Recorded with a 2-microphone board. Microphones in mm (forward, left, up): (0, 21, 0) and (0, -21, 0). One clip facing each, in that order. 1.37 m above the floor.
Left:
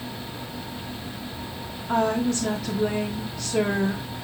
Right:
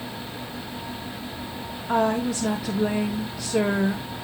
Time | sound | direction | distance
1.9 | a woman speaking | 10° right (ahead or behind) | 0.8 m